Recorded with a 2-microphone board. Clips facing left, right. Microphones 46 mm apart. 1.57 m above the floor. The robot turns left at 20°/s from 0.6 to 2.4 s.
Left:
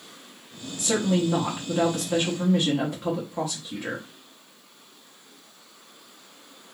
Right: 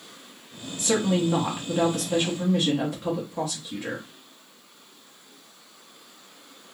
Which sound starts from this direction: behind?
A woman speaking, at 0.8 s.